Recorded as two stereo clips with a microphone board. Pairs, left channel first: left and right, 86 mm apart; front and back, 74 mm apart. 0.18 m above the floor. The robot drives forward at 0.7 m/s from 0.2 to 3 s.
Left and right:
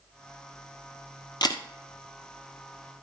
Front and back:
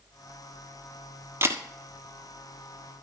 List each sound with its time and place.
1.4 s a camera shutter: 125° left, 1.4 m; by 1.6 s 130° left, 1.5 m